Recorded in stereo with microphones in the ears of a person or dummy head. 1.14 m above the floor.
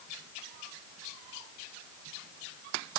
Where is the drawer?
I don't hear a drawer.